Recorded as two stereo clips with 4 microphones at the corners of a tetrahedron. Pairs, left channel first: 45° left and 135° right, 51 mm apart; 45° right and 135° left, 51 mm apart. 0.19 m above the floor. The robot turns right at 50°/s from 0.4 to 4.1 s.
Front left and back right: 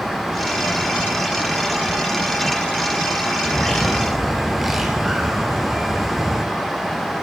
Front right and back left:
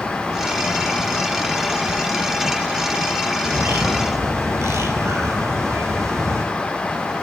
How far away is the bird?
About 2.5 m.